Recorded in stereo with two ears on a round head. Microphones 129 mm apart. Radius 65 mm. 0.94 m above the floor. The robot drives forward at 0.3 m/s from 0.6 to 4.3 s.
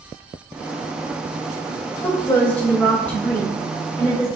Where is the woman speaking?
15° left (ahead or behind), 0.9 m; by 4.3 s 10° left (ahead or behind), 1.5 m.